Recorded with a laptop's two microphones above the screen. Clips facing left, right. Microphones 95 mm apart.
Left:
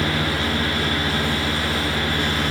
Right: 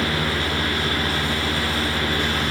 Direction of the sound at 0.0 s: 30° left (ahead or behind).